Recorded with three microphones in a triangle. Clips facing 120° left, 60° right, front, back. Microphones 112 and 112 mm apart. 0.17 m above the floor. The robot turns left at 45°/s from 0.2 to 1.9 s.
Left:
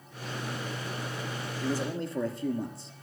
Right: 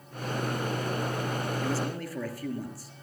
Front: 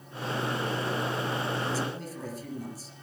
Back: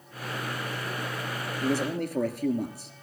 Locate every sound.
1.6 s a man speaking: 160° right, 3 m; by 2.9 s 175° right, 3 m